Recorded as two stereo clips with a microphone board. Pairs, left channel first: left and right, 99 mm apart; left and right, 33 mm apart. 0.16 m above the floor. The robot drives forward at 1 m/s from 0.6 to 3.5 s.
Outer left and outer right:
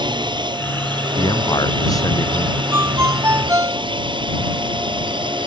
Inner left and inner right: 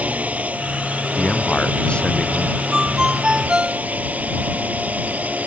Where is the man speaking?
40° left (ahead or behind); by 2.6 s 35° left (ahead or behind).